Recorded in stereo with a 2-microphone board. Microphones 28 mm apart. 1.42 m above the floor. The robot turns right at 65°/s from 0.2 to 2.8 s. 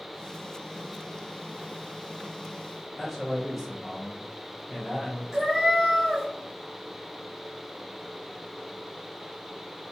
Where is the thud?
No thud in this recording.